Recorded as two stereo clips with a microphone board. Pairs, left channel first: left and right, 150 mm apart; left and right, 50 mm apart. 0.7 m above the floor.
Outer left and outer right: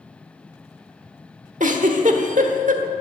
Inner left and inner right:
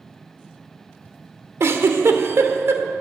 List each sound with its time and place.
1.6 s a giggle: 60° right (ahead or behind), 1.3 m